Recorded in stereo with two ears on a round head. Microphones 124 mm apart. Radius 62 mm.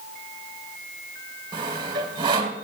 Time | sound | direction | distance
1.5 | sawing | 35° right (ahead or behind) | 1.9 m